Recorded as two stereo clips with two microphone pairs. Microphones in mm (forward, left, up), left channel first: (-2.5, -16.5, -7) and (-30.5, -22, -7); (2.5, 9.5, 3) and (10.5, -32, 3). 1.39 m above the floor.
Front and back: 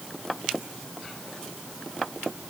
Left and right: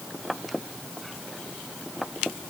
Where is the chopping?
I don't hear chopping.